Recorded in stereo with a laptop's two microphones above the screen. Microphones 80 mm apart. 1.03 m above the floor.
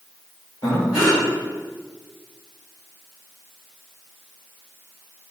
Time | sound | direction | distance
0.6 | breathing | 50° left (ahead or behind) | 1.9 m